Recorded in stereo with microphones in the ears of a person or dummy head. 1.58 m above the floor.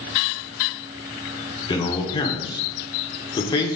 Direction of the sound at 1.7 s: 25° left (ahead or behind).